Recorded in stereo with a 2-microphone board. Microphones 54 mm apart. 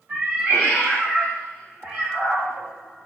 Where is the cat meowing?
40° right (ahead or behind), 1.6 m.